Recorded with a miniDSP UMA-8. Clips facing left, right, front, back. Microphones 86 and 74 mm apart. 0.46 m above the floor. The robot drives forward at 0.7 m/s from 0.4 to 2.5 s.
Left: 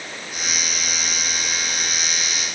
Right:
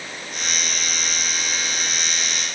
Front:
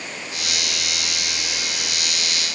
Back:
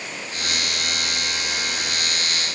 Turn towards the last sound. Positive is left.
No sound to turn to.